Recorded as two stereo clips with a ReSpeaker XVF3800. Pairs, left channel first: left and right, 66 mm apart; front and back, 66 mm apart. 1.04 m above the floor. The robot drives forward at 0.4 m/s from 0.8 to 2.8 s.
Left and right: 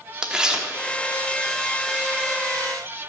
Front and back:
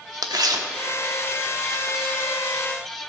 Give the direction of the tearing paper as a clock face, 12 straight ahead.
6 o'clock.